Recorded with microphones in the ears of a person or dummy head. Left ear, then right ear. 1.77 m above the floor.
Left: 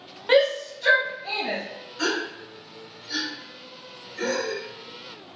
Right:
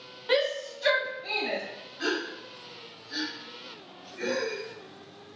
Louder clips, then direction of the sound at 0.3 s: Left 7 dB; 10° left (ahead or behind).